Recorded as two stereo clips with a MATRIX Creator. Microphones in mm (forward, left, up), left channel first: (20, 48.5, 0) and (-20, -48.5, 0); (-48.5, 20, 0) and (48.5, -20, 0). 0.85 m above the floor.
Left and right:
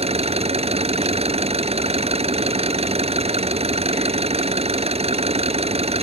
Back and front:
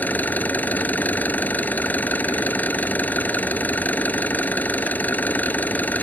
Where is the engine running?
125° right.